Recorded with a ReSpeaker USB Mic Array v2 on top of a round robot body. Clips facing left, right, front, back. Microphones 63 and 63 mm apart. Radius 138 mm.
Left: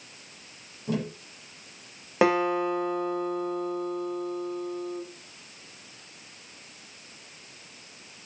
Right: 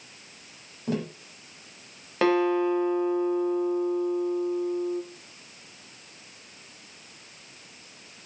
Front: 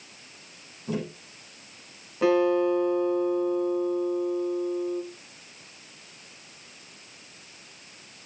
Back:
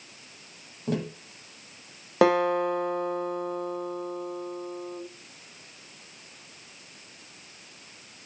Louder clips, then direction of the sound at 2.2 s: Right 1 dB, even; 165° left.